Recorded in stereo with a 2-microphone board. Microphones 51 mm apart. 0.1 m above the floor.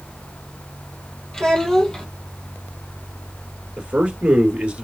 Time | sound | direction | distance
1.3 | a child speaking | 10° left (ahead or behind) | 2 m
3.8 | a man speaking | 25° right (ahead or behind) | 1.7 m